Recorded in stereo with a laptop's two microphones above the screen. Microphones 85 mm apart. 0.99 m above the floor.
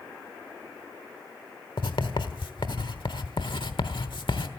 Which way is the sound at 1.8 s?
70° left (ahead or behind).